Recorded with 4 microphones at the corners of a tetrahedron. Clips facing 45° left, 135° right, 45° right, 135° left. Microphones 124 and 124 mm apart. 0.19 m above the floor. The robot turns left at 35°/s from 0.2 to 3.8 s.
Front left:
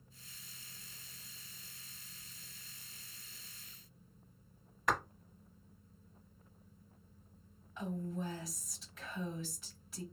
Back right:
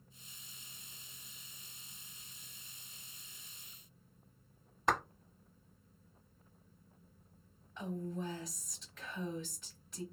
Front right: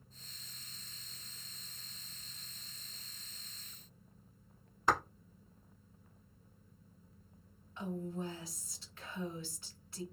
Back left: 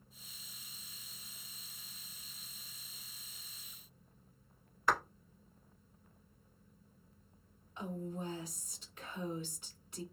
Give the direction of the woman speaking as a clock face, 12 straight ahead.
8 o'clock.